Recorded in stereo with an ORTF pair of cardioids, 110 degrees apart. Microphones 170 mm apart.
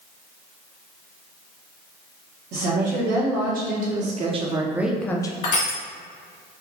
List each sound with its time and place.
2.5 s a woman speaking: 70° right, 1.3 m; by 5.3 s 30° left, 0.5 m
5.4 s crushing: 55° left, 1.5 m